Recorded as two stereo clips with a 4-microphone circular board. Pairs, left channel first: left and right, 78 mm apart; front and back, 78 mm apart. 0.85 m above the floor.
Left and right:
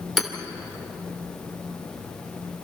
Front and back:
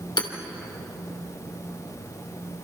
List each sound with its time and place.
0.2 s hammering: straight ahead, 2.5 m